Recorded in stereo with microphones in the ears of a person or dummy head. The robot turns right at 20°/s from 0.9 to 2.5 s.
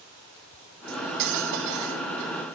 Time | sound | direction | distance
0.9 | cutlery clinking | 50° right (ahead or behind) | 1.6 m